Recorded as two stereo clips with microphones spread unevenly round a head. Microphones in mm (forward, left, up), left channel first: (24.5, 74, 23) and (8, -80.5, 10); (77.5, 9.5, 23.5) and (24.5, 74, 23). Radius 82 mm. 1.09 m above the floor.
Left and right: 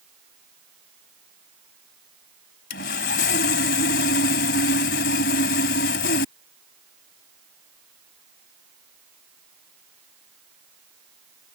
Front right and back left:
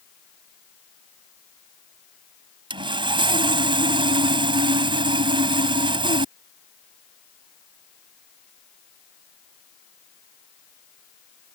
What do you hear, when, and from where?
2.7 s sawing: 115° left